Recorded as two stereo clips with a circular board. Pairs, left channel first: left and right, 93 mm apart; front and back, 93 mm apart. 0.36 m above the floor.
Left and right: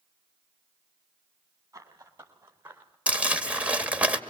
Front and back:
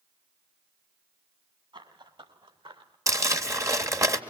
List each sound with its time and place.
1.7 s running footsteps: 150° right, 6 m; by 3.0 s 160° right, 4.5 m
3.1 s crumpling: 155° right, 1.5 m